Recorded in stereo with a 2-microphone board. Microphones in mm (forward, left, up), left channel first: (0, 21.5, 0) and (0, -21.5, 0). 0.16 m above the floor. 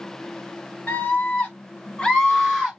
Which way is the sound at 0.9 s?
40° left (ahead or behind).